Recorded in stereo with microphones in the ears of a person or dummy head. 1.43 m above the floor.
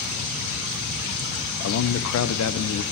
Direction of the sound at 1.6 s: 80° left.